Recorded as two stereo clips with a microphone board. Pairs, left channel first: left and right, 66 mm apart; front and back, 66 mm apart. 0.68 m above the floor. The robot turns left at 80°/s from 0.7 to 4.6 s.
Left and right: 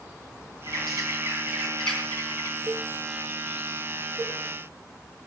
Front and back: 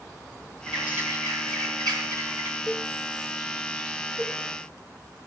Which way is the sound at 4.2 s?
10° right.